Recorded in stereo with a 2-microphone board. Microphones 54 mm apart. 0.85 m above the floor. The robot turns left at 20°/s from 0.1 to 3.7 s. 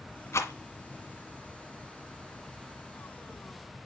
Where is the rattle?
60° left (ahead or behind), 1.6 m; by 0.5 s 55° left (ahead or behind), 1.6 m.